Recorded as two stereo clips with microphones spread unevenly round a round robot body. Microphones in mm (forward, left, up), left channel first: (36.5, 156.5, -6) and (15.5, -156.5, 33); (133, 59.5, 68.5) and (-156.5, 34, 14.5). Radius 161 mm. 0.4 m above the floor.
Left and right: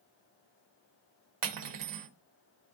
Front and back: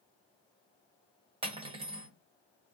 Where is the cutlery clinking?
110° right, 1.0 m.